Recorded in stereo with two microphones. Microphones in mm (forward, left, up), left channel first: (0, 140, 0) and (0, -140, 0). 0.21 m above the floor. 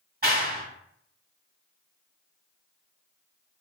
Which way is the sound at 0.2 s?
35° right (ahead or behind).